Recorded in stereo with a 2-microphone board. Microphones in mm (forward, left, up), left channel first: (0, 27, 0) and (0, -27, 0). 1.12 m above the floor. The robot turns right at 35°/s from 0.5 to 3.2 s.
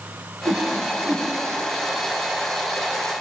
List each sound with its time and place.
0.5 s a whoosh: 60° right (ahead or behind), 1.8 m; by 1.3 s 35° right (ahead or behind), 1.8 m